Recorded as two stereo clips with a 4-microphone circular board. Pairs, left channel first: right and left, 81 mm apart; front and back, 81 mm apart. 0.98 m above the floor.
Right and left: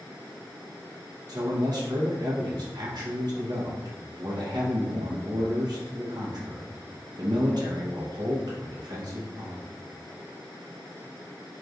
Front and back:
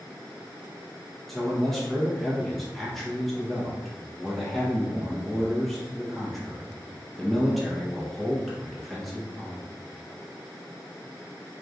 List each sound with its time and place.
1.3 s a man speaking: 90° left, 0.8 m